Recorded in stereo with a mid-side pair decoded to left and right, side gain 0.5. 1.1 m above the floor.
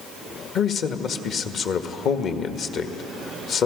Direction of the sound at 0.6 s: 60° left.